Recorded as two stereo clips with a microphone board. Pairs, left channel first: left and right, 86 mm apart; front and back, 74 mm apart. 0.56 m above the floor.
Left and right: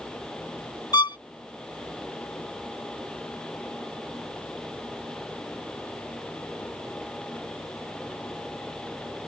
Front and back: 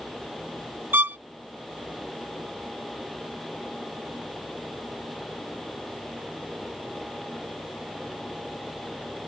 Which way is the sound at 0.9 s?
120° left.